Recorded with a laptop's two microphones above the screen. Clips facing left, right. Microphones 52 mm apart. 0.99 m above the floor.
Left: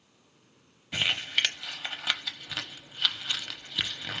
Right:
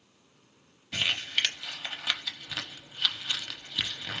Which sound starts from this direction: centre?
Crumpling, at 0.9 s.